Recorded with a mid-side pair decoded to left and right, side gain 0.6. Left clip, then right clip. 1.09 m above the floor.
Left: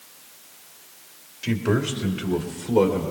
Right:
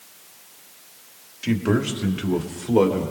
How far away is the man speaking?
About 1.8 m.